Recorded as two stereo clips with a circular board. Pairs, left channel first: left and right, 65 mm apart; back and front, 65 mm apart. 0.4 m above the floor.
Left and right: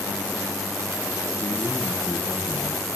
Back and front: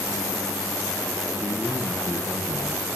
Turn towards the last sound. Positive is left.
turn(degrees=35)